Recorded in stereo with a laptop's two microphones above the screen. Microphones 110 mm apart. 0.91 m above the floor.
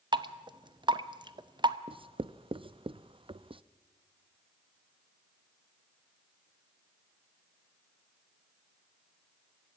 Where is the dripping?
45° right (ahead or behind), 0.7 m.